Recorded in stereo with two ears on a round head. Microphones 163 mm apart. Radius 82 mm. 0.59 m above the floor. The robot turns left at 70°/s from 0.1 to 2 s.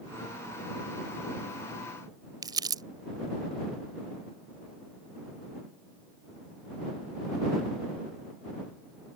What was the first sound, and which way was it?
Crumpling, 25° right (ahead or behind).